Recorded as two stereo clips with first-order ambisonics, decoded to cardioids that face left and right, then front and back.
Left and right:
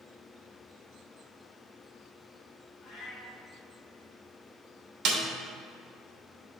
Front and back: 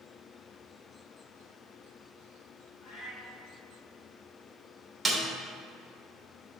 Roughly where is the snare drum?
Right.